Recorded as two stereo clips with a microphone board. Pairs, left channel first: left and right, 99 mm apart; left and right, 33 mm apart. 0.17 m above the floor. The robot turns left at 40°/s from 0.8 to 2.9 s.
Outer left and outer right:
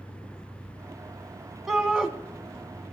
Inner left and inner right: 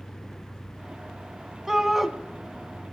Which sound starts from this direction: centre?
A shout, at 1.7 s.